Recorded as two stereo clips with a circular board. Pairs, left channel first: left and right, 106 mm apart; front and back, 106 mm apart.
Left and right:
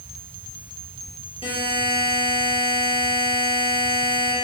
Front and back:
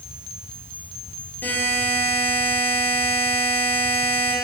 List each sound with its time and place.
1.4 s a buzzer: 70° left, 4 m